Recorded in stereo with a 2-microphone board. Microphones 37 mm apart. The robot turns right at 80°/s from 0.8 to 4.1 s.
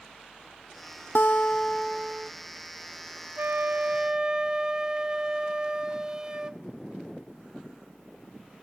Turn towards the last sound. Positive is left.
turn(degrees=-25)